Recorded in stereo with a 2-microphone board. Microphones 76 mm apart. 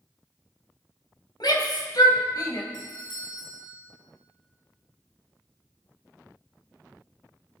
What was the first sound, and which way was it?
A shout, 65° left (ahead or behind).